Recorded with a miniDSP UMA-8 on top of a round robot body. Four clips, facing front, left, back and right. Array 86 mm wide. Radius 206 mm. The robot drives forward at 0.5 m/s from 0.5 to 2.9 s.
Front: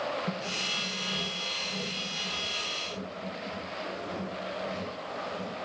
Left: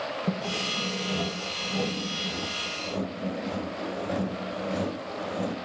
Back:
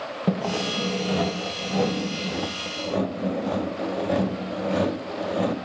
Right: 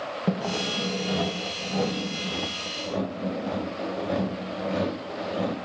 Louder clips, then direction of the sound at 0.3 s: Right 3 dB, back 10 dB; 155° right.